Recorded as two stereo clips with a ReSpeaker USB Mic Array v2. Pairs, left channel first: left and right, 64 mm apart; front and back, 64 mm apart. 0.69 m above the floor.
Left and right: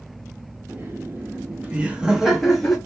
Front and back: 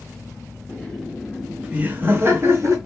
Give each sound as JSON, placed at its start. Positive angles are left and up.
{"t": 0.7, "sound": "laughter", "azimuth_deg": -70, "distance_m": 0.9}